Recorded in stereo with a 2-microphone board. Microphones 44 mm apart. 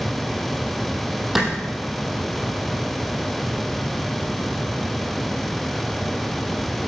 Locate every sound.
1.4 s a clap: 5° right (ahead or behind), 4.5 m